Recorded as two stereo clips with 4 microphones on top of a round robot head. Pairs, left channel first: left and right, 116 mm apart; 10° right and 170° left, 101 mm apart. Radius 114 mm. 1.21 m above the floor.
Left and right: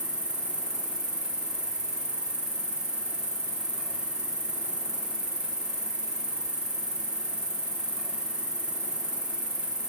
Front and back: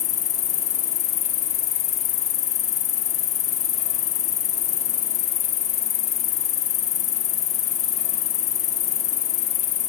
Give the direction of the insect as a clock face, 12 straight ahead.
12 o'clock.